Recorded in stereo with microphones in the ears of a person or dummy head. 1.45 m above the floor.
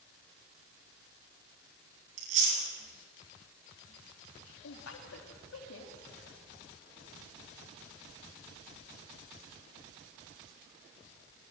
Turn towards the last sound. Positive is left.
turn(degrees=75)  # may be behind; listen again after turning